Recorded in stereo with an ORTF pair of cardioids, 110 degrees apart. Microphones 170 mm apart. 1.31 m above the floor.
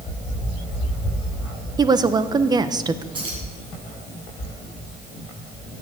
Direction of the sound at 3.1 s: 30° right.